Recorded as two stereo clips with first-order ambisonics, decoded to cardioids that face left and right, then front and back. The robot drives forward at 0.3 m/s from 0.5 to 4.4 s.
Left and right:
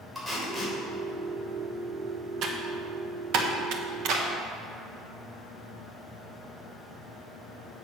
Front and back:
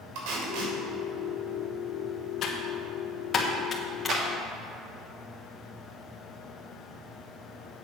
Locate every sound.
0.1 s tape being pulled: 175° right, 3 m
2.4 s typing on a keyboard: 50° right, 1.3 m; by 4.2 s 75° right, 1.1 m
4.1 s a clap: 130° right, 1.8 m